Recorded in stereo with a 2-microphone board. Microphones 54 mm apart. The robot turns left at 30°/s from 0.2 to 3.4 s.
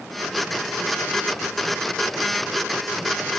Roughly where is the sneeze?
I don't hear a sneeze.